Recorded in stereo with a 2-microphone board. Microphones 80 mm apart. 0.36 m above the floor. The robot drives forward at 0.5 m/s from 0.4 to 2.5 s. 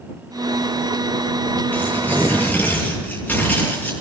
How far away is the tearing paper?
About 9.5 m.